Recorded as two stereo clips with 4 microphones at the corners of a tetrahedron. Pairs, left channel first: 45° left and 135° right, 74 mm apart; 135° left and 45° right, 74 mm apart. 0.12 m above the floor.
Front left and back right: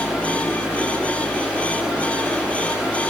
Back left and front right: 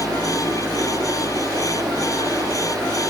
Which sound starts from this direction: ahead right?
Running water, at 0.0 s.